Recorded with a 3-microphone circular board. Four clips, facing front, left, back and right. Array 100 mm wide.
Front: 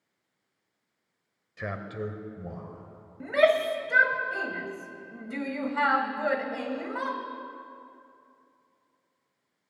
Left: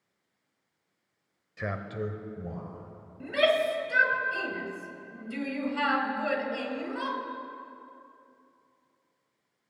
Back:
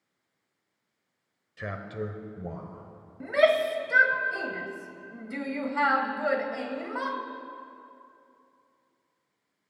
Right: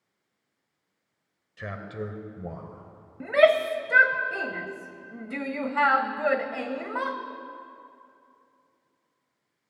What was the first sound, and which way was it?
A man speaking, 55° left.